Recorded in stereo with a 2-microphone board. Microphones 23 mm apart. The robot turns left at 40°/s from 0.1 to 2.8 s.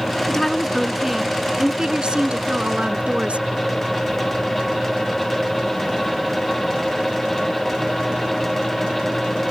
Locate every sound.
0.3 s a woman speaking: 15° left; by 3.5 s 85° right